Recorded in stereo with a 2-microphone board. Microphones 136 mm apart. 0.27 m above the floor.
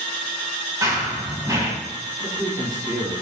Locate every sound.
0.8 s running footsteps: 25° right (ahead or behind), 5 m
2.2 s a man speaking: 25° right (ahead or behind), 5.5 m